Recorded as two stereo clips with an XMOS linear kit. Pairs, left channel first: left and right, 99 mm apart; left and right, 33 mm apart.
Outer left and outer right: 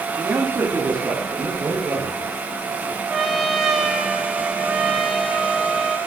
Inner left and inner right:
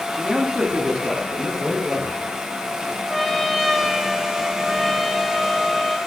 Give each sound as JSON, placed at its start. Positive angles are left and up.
{"t": 0.2, "sound": "a man speaking", "side_deg": -25, "distance_m": 1.9}
{"t": 3.1, "sound": "a trumpet", "side_deg": -5, "distance_m": 1.7}